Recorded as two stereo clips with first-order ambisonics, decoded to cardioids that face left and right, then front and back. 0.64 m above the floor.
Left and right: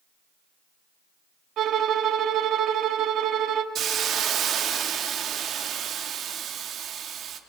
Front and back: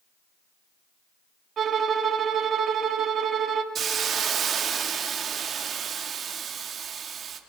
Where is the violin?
125° right, 0.9 m.